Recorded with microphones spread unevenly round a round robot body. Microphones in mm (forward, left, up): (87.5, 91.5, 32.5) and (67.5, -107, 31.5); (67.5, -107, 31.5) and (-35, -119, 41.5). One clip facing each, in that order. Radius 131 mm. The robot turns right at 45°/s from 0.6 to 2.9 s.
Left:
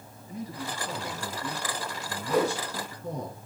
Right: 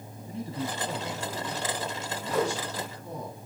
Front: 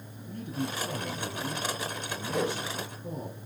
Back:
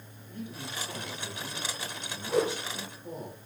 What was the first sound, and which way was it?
A man speaking, 35° right.